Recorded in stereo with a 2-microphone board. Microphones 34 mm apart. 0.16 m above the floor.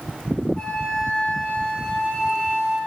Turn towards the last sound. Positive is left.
turn(degrees=20)  # may be behind; listen again after turning